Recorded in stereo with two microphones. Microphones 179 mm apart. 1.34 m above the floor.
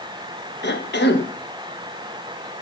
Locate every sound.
0.6 s a cough: 75° left (ahead or behind), 1.2 m